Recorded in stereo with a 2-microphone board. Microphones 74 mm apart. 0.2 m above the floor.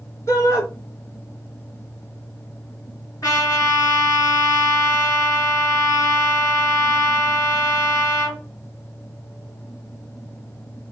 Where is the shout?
45° left (ahead or behind), 2.5 m.